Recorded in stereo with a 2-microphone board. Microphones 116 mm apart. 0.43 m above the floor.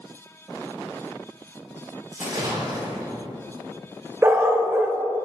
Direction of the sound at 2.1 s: 40° right (ahead or behind).